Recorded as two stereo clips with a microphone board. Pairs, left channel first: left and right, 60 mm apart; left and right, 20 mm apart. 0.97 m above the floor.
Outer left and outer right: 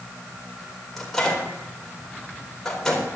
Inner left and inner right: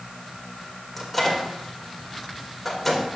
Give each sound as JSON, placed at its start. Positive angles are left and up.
{"t": 1.0, "sound": "a microwave", "side_deg": 5, "distance_m": 3.5}